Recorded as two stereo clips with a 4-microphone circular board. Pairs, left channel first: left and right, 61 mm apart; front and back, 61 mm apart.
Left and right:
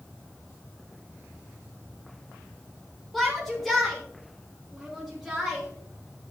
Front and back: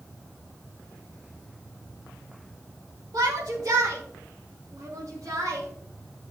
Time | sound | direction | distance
3.1 | a shout | 175° left | 1.7 m